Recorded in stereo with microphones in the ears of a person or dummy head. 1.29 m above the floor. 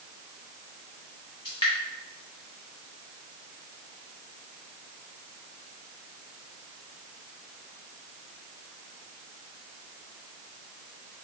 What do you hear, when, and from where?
1.4 s dripping: 20° left (ahead or behind), 1.0 m